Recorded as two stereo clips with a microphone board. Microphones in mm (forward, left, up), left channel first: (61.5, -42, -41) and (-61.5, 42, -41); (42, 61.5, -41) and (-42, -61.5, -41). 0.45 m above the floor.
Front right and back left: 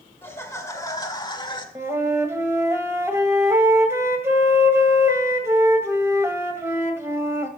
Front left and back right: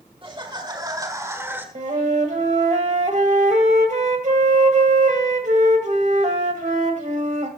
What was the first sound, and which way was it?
Laughter, 100° right.